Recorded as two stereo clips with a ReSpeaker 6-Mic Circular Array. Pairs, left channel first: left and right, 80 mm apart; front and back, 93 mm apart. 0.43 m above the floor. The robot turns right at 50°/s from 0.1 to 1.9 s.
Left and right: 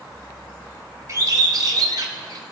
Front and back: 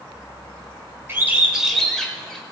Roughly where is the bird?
Behind right.